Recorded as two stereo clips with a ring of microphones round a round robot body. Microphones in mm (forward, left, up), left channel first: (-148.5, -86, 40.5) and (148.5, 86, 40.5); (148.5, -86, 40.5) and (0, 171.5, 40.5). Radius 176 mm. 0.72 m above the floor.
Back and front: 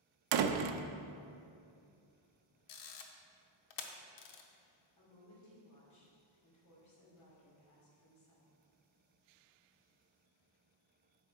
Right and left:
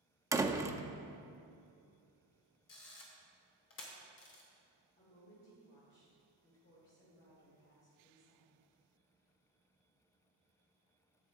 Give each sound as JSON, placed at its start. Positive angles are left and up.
{"t": 0.3, "sound": "a door slam", "azimuth_deg": 40, "distance_m": 0.6}
{"t": 2.7, "sound": "a camera shutter", "azimuth_deg": -115, "distance_m": 0.8}
{"t": 5.0, "sound": "a woman speaking", "azimuth_deg": -115, "distance_m": 2.5}